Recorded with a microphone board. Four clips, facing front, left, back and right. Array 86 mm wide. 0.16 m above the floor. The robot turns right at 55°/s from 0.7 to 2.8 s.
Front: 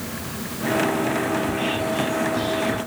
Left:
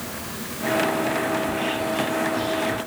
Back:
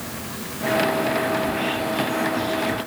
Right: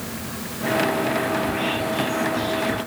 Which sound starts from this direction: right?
Whispering, at 1.4 s.